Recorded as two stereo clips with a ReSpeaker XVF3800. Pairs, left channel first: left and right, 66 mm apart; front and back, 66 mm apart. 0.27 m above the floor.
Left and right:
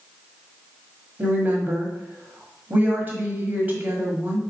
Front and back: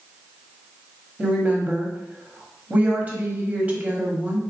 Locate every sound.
1.2 s a woman speaking: 130° right, 1.2 m